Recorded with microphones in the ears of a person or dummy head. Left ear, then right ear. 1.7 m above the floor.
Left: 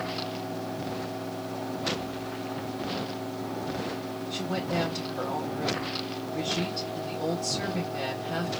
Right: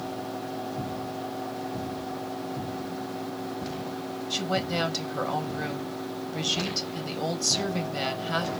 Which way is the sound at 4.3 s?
75° right (ahead or behind).